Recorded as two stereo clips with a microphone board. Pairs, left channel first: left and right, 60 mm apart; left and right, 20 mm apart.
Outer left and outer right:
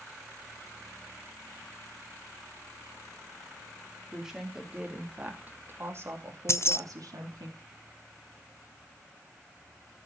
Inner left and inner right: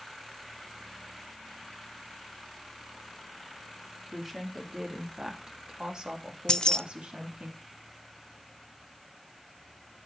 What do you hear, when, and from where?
4.1 s a woman speaking: 5° right (ahead or behind), 3 m; by 7.5 s 75° right (ahead or behind), 3 m
6.5 s keys jangling: 45° left (ahead or behind), 0.6 m